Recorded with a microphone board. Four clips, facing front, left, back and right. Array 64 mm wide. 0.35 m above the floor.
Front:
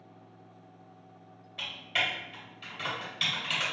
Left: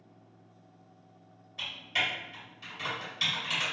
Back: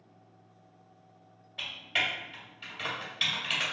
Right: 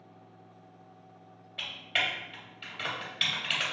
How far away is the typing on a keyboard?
About 1.7 m.